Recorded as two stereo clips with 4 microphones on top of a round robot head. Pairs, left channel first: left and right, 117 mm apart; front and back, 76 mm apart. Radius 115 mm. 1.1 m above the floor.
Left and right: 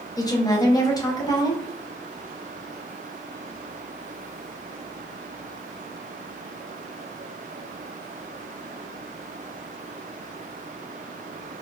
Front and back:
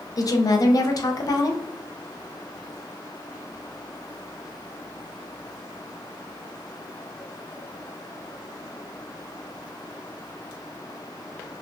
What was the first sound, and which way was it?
A woman speaking, 35° left.